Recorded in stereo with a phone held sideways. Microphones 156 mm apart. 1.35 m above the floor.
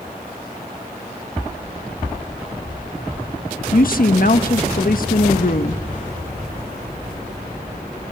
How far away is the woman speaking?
About 1.3 m.